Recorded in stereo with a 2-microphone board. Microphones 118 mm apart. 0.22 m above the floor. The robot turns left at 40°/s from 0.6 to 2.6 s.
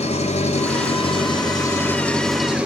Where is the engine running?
70° left, 1.3 m; by 2.7 s 10° right, 1.3 m.